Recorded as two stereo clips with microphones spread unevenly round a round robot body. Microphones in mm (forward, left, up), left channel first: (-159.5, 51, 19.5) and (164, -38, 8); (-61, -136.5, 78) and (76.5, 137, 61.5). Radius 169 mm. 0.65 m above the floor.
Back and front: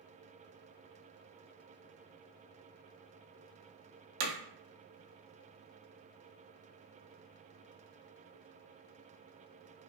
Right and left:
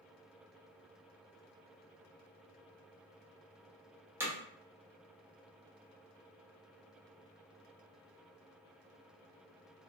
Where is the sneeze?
I don't hear a sneeze.